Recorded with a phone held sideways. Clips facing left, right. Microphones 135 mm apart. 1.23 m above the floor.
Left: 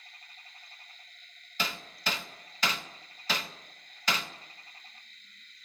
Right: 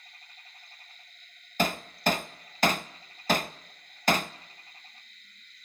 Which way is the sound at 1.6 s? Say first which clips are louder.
Right 9 dB; 50° right (ahead or behind).